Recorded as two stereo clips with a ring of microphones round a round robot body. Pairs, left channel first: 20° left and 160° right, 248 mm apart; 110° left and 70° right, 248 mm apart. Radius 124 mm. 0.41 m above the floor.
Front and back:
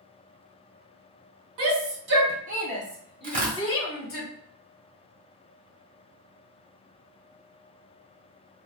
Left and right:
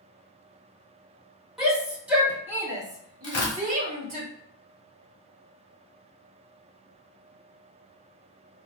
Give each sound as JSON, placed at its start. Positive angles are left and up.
{"t": 1.6, "sound": "a shout", "azimuth_deg": -155, "distance_m": 1.4}
{"t": 3.2, "sound": "tearing paper", "azimuth_deg": 140, "distance_m": 1.3}